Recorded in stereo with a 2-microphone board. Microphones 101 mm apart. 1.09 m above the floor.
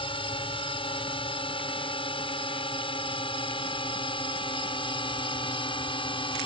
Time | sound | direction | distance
0.0 | a drone | 60° left (ahead or behind) | ?